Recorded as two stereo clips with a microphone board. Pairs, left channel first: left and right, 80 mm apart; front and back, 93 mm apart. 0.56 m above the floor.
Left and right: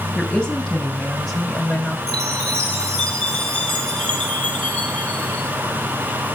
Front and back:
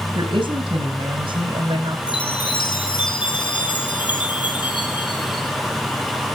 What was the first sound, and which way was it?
A woman speaking, 170° left.